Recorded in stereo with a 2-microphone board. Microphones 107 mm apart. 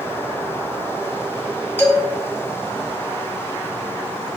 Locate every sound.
1.8 s a man speaking: 15° left (ahead or behind), 1.9 m